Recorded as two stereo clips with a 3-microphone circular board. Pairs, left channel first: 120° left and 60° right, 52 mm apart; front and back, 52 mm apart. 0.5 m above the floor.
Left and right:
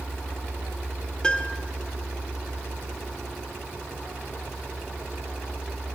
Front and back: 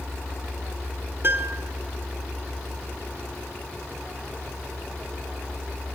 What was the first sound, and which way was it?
A piano, 170° right.